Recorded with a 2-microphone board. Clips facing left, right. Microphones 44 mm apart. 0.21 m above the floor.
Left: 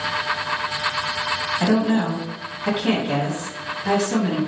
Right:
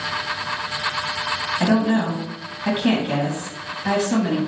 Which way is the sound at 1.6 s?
20° right (ahead or behind).